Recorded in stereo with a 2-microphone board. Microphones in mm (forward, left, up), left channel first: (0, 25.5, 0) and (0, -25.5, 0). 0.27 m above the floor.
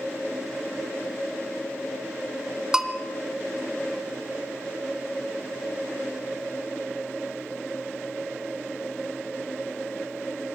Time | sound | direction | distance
2.7 | a bell | 10° right (ahead or behind) | 1.9 m